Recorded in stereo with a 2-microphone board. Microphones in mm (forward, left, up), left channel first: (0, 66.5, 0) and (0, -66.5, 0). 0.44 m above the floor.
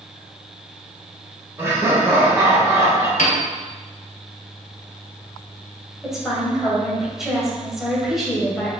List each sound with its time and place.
1.6 s laughter: 20° right (ahead or behind), 1.7 m
3.2 s a piano: 80° left, 1.1 m
6.0 s a woman speaking: 5° right (ahead or behind), 1.8 m